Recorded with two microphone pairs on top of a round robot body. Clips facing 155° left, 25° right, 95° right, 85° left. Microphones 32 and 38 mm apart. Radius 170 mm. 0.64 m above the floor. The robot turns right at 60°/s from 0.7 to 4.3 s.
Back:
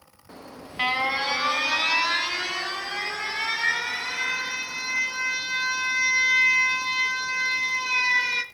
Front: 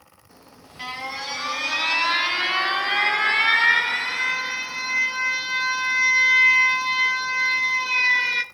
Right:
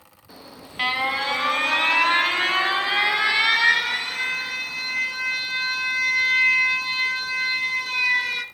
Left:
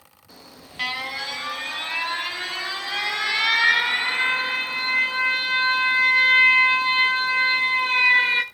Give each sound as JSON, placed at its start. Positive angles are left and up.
{"t": 0.3, "sound": "an alarm", "azimuth_deg": -170, "distance_m": 1.1}